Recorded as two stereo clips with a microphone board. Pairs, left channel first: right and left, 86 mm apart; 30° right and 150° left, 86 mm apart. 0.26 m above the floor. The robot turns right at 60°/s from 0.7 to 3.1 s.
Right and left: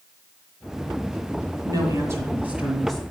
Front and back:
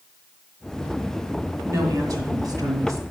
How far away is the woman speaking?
About 2 m.